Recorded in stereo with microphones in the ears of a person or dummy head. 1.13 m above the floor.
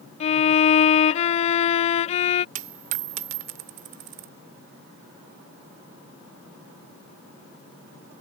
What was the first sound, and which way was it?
A violin, 35° left (ahead or behind).